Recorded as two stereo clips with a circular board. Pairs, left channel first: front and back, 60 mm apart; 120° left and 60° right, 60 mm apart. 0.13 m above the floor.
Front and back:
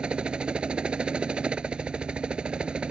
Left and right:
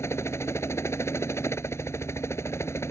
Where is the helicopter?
110° left.